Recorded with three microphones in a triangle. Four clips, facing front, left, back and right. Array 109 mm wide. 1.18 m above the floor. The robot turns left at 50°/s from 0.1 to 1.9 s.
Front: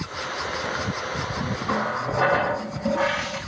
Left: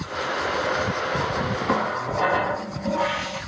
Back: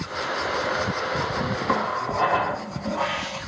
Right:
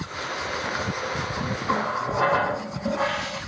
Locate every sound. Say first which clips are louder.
1.7 s a running tap: right 1 dB, even; straight ahead, 4 m; by 3.4 s 15° right, 4 m